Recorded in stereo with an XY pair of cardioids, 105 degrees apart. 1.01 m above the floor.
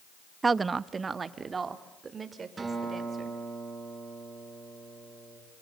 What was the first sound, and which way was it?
A woman speaking, 30° right.